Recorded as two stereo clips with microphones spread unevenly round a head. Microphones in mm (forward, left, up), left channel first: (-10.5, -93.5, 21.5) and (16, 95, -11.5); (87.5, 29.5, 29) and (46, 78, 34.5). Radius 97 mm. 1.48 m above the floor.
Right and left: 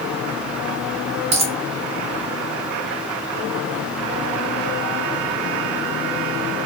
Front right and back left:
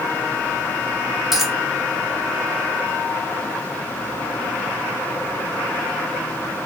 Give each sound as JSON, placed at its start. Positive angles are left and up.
{"t": 1.3, "sound": "a dropped coin", "azimuth_deg": 70, "distance_m": 0.7}